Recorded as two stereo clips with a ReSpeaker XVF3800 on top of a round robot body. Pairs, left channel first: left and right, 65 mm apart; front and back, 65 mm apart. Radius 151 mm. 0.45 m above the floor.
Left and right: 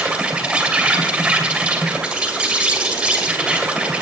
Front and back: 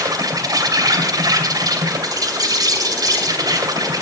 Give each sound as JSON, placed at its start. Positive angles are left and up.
{"t": 0.0, "sound": "an insect", "azimuth_deg": -165, "distance_m": 3.0}